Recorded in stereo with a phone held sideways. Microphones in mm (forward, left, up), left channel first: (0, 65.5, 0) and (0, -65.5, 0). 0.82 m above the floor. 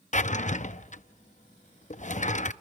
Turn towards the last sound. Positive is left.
turn(degrees=70)  # may be behind; listen again after turning